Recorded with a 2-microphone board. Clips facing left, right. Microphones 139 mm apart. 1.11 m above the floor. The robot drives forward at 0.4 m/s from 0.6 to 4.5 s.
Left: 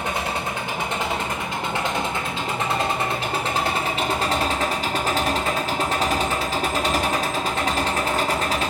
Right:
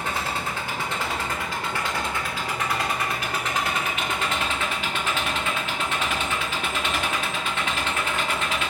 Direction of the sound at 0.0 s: 20° left (ahead or behind).